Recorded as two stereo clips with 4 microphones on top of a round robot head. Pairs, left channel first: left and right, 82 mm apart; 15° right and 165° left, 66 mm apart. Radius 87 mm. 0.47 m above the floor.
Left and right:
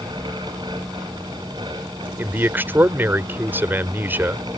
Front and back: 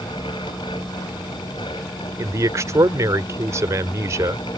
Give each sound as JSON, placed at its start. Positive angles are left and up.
{"t": 2.2, "sound": "a man speaking", "azimuth_deg": -155}